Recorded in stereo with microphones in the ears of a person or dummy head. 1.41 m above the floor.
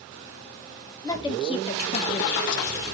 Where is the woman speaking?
20° left (ahead or behind), 1.5 m; by 2.8 s 80° left, 0.8 m.